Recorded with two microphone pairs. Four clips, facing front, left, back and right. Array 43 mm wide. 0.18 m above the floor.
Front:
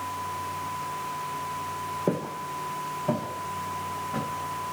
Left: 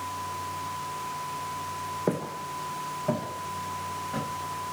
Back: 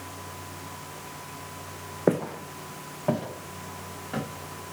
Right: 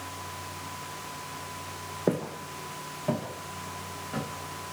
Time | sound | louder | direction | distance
2.1 | footsteps | right 3 dB, back 6 dB | 175° left | 0.7 m